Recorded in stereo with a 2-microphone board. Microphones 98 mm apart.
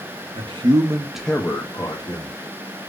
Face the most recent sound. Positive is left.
turn(degrees=50)  # may be behind; listen again after turning